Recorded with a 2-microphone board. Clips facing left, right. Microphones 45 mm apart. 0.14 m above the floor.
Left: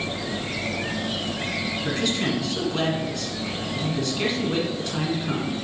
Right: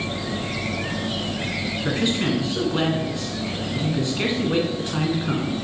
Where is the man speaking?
20° right (ahead or behind), 1.3 m.